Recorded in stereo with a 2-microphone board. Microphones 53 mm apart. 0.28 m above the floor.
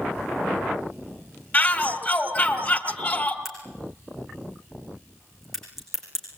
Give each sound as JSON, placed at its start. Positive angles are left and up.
{"t": 1.5, "sound": "a shout", "side_deg": 35, "distance_m": 2.0}
{"t": 3.5, "sound": "a crack", "side_deg": 0, "distance_m": 7.5}